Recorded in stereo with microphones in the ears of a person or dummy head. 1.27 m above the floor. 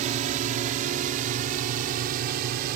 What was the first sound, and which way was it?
A drone, 45° right (ahead or behind).